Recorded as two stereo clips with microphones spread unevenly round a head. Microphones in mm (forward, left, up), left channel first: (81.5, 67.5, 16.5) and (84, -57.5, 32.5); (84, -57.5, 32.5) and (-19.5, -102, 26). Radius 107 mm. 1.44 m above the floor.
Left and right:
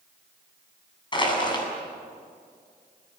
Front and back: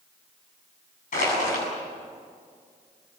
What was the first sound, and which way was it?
Crushing, 40° left.